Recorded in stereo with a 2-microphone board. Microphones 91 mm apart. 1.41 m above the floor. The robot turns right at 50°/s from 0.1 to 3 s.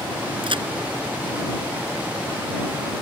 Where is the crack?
70° right (ahead or behind); by 0.7 s 60° right (ahead or behind).